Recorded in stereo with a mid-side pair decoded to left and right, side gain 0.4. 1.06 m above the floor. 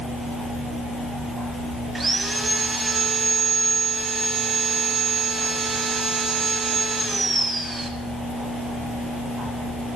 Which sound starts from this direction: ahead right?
Sawing, at 1.9 s.